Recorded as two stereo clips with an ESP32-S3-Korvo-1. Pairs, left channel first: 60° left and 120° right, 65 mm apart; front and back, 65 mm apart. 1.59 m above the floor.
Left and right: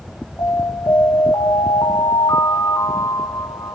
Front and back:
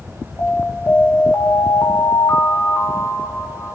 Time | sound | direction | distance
0.4 | an alarm | 45° left | 3 m